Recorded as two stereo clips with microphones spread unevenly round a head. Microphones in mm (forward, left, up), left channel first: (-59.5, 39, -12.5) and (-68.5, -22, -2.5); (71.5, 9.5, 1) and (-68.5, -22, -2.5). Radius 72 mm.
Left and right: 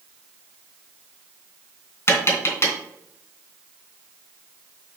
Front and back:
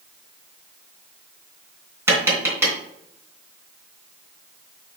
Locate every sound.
2.1 s tapping: 120° left, 3 m